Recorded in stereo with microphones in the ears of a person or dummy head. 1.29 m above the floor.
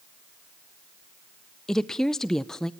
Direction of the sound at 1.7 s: 5° left (ahead or behind).